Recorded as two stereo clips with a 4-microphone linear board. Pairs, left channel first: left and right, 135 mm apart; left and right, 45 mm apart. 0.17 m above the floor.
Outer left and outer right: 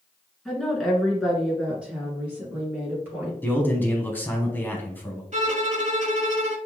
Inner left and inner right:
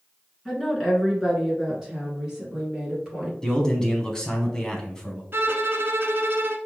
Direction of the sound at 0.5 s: Centre (ahead or behind).